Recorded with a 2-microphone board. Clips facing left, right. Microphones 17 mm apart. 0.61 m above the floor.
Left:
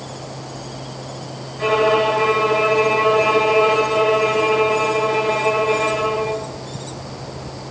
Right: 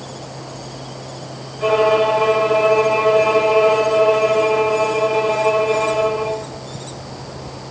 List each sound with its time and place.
1.6 s a violin: 30° left (ahead or behind), 6.5 m